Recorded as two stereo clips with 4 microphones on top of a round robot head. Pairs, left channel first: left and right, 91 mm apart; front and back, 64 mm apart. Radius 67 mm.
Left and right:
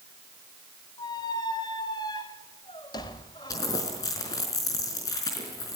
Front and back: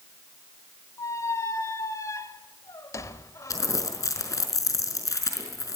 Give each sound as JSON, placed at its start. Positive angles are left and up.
{"t": 1.0, "sound": "a squeak", "azimuth_deg": 35, "distance_m": 1.2}
{"t": 3.5, "sound": "crumpling", "azimuth_deg": 30, "distance_m": 4.5}